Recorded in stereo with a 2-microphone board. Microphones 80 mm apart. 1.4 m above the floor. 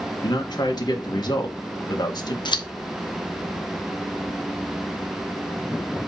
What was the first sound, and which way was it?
A man speaking, 55° left (ahead or behind).